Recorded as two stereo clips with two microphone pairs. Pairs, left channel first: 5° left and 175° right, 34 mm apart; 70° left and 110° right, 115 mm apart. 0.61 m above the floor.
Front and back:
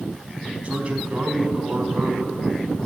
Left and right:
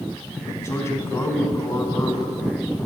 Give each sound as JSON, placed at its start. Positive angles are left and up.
{"t": 0.6, "sound": "a man speaking", "azimuth_deg": 135, "distance_m": 4.5}